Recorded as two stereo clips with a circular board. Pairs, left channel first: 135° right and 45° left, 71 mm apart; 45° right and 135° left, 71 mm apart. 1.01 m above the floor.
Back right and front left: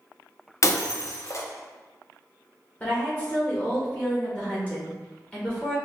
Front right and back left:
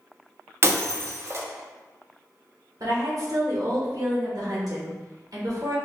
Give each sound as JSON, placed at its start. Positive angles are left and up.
{"t": 0.6, "sound": "breaking glass", "azimuth_deg": -175, "distance_m": 0.6}
{"t": 2.8, "sound": "a woman speaking", "azimuth_deg": 155, "distance_m": 1.6}